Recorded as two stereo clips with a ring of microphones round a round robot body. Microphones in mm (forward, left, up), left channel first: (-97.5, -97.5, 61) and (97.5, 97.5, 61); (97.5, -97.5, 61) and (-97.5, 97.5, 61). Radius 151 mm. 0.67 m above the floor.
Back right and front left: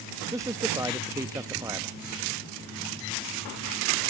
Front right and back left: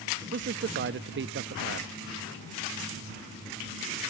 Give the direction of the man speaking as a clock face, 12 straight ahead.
8 o'clock.